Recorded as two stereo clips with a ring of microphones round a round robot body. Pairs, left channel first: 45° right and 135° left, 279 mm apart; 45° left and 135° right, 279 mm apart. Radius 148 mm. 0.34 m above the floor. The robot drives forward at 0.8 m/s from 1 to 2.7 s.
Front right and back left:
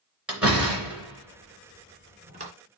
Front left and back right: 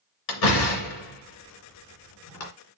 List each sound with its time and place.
0.3 s a door slam: 50° left, 3 m; by 2.5 s 70° left, 2.5 m